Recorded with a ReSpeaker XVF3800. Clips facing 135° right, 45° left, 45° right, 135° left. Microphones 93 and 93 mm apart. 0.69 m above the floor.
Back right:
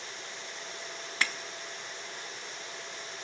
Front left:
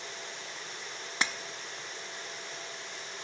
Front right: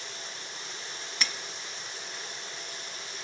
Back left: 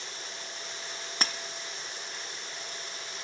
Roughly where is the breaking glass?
Left.